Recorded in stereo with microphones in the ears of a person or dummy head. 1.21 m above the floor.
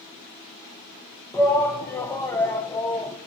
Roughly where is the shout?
Centre.